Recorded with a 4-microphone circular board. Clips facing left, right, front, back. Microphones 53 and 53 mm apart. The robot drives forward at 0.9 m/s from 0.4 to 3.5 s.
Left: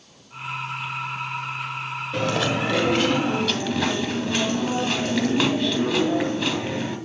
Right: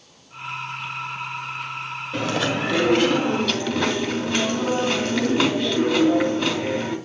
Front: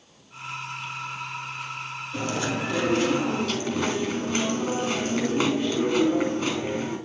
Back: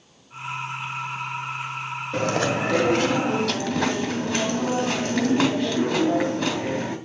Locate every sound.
2.1 s chewing: straight behind, 1.2 m